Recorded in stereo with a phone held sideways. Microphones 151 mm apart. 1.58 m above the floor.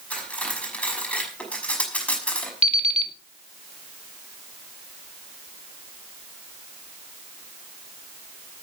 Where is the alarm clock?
45° right (ahead or behind), 2 m.